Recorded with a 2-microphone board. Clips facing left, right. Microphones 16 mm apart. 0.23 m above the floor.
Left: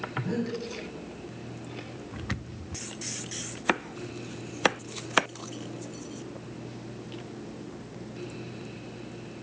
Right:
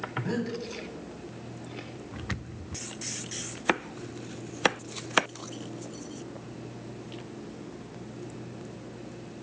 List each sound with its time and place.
0.2 s breathing: 25° right (ahead or behind), 1.4 m